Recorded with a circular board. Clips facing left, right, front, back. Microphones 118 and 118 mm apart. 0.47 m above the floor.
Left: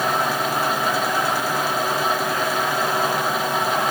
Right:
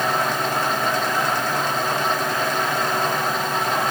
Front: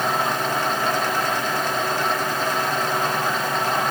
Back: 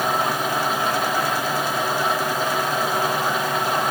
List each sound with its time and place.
Only background noise.